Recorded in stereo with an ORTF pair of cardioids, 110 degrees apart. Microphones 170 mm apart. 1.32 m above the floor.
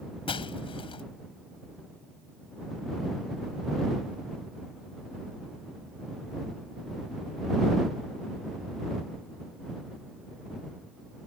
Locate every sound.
0.3 s breaking glass: 35° left